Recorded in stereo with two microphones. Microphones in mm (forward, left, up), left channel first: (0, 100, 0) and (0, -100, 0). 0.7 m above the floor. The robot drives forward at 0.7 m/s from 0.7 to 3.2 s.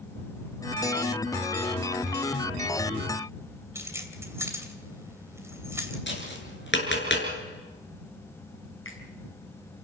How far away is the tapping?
About 6 m.